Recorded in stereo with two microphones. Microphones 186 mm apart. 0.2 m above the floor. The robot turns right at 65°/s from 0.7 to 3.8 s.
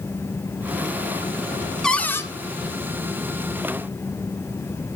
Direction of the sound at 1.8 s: 5° left (ahead or behind).